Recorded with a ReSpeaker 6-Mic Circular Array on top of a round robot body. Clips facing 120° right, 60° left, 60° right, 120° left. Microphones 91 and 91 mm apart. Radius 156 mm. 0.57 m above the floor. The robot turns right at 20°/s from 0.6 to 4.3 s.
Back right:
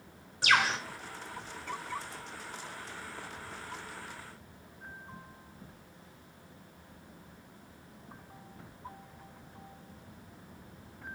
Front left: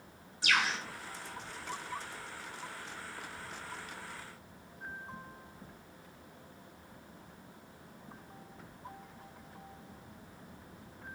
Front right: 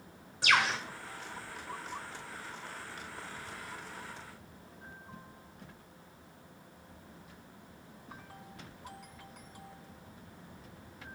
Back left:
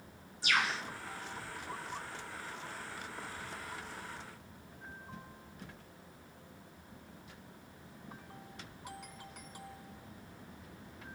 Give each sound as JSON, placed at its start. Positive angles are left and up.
{"t": 0.4, "sound": "a bird", "azimuth_deg": -85, "distance_m": 1.0}